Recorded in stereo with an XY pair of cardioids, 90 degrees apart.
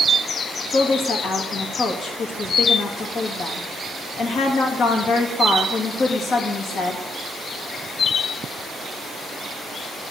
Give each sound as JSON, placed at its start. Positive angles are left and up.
{"t": 0.7, "sound": "a woman speaking", "azimuth_deg": 65, "distance_m": 3.0}